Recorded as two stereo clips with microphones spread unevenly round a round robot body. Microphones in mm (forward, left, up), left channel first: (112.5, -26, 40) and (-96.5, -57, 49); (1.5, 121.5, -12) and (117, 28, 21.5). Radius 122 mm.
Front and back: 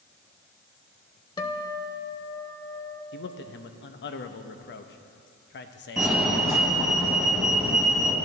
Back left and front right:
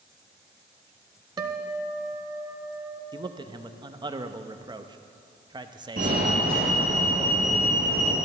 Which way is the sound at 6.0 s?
80° right.